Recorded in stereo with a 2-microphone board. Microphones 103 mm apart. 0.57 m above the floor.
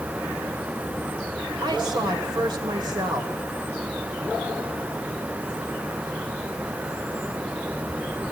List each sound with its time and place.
1.6 s a woman speaking: 45° right (ahead or behind), 1.8 m